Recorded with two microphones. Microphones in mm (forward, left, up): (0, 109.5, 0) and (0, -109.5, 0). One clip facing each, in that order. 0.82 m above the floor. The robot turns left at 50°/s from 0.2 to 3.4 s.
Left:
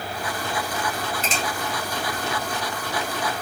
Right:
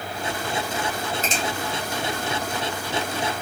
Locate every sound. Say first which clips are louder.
1.2 s a finger snap: right 1 dB; 40° right (ahead or behind), 1.7 m; by 1.4 s 50° right (ahead or behind), 1.7 m